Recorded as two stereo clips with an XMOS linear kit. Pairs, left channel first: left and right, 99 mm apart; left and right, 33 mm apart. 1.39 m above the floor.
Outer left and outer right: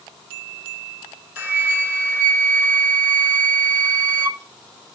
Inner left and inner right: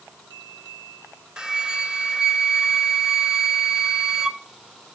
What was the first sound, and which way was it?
A flute, 20° right (ahead or behind).